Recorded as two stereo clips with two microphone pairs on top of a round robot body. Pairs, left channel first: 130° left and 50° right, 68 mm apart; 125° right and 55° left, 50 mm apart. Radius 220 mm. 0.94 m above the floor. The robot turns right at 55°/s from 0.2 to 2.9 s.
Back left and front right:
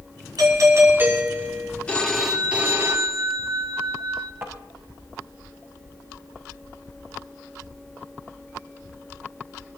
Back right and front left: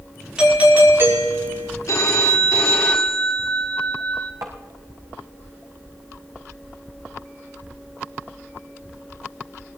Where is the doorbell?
25° right, 6 m; by 1.7 s 50° left, 6 m.